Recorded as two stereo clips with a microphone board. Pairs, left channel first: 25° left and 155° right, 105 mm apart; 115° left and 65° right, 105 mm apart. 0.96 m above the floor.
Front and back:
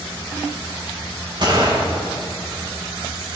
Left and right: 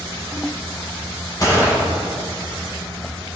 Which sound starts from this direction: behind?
A gunshot, at 1.4 s.